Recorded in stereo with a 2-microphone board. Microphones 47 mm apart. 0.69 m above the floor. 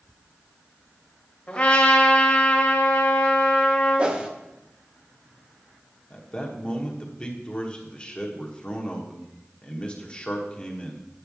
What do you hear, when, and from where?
1.5 s a trumpet: 20° left (ahead or behind), 1.5 m
4.0 s a whoosh: 20° right (ahead or behind), 0.7 m
6.1 s a man speaking: 25° left (ahead or behind), 1.2 m